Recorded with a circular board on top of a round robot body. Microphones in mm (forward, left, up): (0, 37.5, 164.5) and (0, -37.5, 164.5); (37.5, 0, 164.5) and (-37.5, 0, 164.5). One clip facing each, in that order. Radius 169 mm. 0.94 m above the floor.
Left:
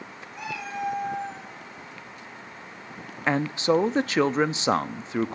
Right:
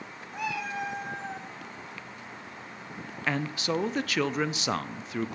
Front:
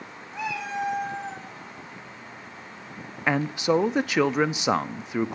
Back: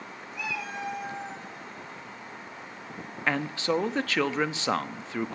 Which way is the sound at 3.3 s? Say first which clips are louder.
Left 7 dB, front 4 dB; 60° left.